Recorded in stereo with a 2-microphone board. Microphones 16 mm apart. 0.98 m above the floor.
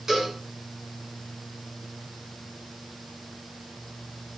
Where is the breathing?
No breathing in this recording.